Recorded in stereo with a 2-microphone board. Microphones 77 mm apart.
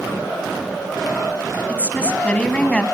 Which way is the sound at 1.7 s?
15° left (ahead or behind).